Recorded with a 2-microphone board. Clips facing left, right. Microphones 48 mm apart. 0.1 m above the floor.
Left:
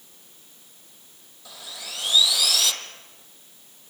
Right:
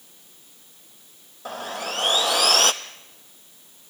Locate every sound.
1.4 s sawing: 50° right (ahead or behind), 0.9 m